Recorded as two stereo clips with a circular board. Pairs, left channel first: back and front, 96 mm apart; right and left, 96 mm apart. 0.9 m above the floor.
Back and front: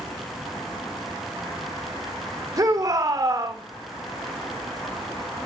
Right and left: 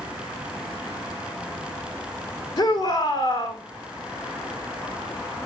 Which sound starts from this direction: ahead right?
A shout, at 2.6 s.